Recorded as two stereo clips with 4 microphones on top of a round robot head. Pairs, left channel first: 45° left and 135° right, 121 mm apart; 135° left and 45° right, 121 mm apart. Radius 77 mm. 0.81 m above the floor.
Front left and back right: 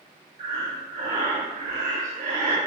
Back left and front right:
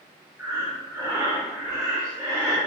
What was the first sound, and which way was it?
Breathing, 115° right.